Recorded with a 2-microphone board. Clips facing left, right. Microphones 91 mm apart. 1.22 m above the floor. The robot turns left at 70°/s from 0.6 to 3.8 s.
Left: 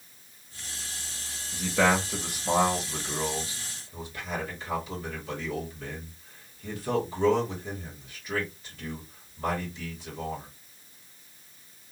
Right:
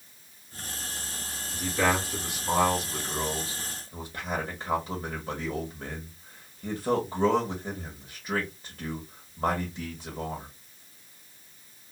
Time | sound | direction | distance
1.5 | a man speaking | 60° left (ahead or behind) | 1.4 m